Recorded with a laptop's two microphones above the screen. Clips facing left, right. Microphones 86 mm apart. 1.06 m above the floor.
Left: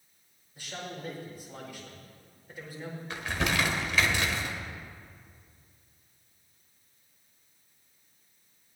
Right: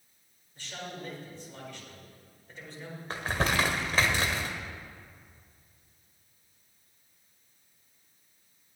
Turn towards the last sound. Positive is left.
turn(degrees=-40)  # may be behind; listen again after turning